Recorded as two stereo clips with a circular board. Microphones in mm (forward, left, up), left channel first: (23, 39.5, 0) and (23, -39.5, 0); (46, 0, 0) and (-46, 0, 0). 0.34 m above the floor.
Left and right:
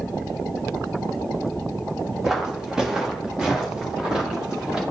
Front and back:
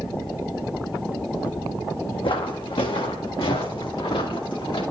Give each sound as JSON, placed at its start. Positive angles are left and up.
{"t": 2.2, "sound": "footsteps", "azimuth_deg": -5, "distance_m": 1.1}